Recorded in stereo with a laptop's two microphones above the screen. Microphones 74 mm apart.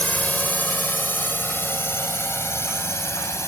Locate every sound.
0.0 s a drone: 20° left (ahead or behind); by 3.5 s 40° left (ahead or behind)